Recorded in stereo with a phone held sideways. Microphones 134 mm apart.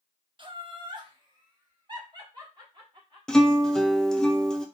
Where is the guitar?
5° left (ahead or behind), 0.5 m.